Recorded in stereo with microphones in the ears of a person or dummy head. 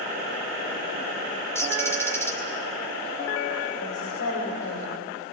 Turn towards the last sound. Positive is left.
turn(degrees=75)  # may be behind; listen again after turning